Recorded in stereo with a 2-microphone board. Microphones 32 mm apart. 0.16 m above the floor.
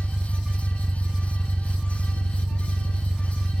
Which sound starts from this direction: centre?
An engine running, at 0.0 s.